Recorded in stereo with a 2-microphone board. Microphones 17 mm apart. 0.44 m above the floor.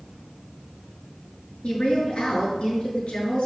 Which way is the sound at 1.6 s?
70° left (ahead or behind).